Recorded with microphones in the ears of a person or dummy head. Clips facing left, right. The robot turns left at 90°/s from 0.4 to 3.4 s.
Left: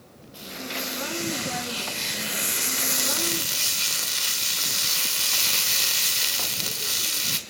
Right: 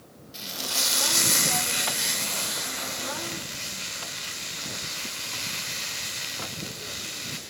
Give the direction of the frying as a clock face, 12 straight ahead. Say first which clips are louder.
Left 3 dB; 1 o'clock.